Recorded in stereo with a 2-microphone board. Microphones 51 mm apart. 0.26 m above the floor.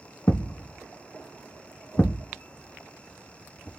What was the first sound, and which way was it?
A thud, 35° left (ahead or behind).